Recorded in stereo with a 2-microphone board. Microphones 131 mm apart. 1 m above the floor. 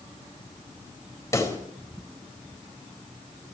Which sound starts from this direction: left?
A pop, at 1.3 s.